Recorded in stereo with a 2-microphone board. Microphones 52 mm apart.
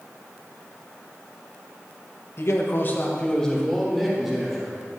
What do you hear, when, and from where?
2.4 s a man speaking: 55° left (ahead or behind), 1.1 m; by 4.7 s 10° right (ahead or behind), 2.5 m